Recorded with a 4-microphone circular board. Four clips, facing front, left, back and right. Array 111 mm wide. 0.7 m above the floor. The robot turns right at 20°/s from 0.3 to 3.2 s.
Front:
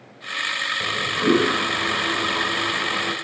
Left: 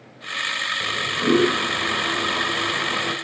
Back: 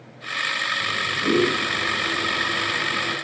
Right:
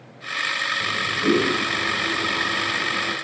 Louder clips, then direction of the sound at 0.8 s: Even, front 6 dB; 20° left.